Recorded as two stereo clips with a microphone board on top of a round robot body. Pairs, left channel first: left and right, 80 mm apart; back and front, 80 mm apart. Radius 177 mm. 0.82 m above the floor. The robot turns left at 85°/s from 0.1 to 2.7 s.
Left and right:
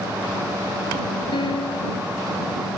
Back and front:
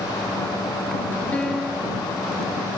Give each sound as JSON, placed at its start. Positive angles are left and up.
{"t": 1.3, "sound": "a piano", "azimuth_deg": 105}